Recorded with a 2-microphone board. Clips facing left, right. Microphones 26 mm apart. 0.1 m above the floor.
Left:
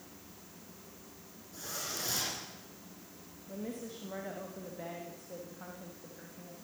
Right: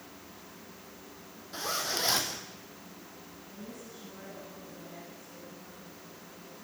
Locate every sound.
1.5 s a zipper: 65° right (ahead or behind), 4.5 m
3.5 s a woman speaking: 65° left (ahead or behind), 6 m